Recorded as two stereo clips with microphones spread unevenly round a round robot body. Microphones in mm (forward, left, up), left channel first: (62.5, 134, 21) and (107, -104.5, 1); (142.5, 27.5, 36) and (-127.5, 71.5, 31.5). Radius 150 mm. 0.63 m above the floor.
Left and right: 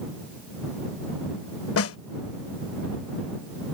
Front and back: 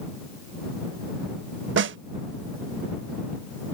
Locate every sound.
1.8 s a snare drum: 125° left